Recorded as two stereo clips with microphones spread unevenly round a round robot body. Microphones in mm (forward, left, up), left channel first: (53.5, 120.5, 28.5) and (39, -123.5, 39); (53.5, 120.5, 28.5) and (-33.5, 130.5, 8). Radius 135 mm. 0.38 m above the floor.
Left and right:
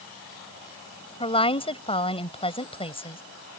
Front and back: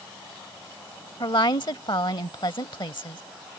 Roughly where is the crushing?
No crushing in this recording.